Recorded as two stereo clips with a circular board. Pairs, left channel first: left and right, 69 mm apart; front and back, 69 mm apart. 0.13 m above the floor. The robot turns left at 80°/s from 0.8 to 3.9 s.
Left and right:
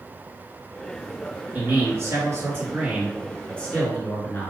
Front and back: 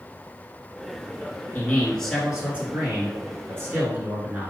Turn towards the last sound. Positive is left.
turn(degrees=130)